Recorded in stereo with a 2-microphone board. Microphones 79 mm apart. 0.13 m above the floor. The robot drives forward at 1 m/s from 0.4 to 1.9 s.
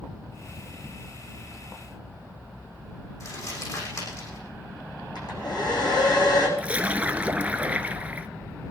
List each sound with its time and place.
3.2 s crumpling: 45° left (ahead or behind), 8 m
5.2 s a hair dryer: 65° left (ahead or behind), 6.5 m
6.6 s a splash: 20° right (ahead or behind), 0.8 m